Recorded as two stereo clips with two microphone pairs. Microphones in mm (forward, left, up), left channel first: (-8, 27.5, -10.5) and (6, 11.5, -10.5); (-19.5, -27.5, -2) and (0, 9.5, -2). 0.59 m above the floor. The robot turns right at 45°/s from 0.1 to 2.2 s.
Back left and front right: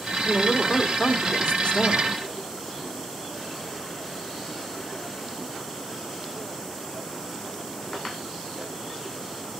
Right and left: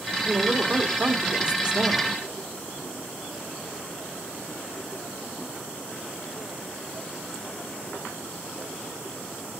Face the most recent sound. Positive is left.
turn(degrees=155)